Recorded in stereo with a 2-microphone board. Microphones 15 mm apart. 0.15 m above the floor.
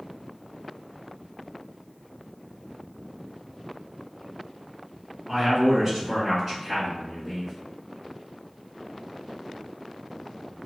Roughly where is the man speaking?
Right.